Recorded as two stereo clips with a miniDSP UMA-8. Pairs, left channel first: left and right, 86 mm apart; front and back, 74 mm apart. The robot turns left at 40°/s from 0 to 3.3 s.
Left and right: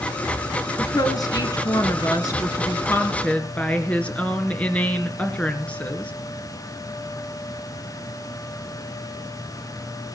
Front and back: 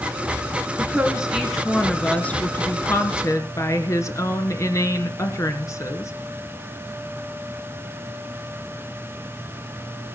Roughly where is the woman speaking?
Behind left.